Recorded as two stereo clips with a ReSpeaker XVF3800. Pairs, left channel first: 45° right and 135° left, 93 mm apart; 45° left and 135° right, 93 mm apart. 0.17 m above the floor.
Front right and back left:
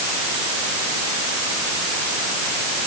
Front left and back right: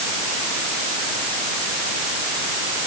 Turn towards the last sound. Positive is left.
No sound to turn to.